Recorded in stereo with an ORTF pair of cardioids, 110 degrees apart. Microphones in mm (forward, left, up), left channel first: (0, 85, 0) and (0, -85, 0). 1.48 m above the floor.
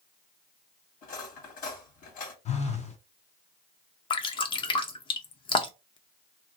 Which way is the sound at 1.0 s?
60° left.